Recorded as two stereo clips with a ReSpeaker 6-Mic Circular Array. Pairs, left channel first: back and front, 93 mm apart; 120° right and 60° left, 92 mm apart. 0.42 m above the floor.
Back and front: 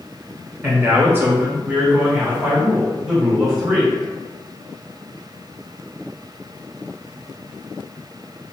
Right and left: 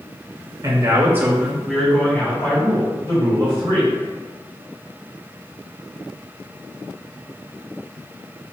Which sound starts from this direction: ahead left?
A man speaking, at 0.6 s.